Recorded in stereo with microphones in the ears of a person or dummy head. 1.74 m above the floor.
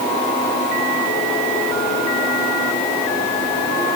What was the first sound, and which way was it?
Only background noise.